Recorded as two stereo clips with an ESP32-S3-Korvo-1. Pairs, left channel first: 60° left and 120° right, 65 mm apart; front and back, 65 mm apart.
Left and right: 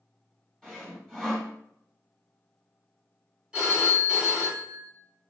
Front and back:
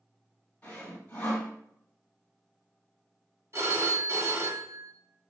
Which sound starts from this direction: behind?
A phone ringing, at 3.5 s.